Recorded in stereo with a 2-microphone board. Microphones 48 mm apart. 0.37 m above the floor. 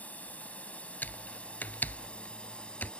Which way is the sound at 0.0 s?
30° left (ahead or behind).